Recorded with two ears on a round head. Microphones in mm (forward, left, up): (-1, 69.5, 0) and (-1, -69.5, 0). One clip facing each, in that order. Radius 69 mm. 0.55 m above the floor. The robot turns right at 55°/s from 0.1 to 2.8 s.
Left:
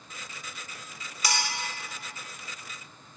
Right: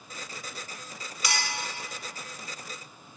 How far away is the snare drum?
No snare drum in this recording.